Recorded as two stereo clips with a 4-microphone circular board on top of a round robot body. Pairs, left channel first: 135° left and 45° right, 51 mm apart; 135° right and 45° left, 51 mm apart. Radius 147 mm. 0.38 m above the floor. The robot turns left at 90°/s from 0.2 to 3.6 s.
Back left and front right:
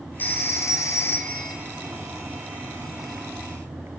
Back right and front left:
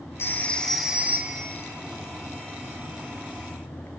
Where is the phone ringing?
175° right, 2 m; by 1.6 s 65° left, 2 m.